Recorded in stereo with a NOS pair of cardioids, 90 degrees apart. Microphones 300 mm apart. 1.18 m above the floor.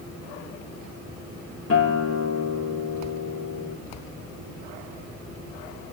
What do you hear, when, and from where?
1.7 s a guitar: 50° left, 4 m